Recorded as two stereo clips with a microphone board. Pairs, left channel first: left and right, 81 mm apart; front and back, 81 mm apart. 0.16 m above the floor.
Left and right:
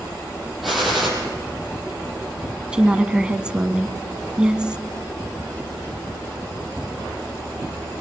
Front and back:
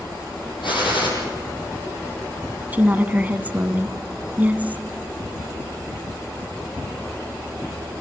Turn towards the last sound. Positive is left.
turn(degrees=-150)